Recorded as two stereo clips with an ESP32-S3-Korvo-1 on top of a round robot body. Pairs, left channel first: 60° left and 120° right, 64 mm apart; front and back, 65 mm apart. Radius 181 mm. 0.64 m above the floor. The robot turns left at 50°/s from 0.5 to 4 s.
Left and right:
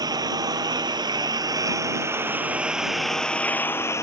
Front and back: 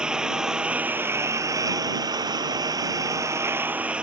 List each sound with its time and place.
0.0 s a lawn mower: 100° right; by 4.0 s 105° left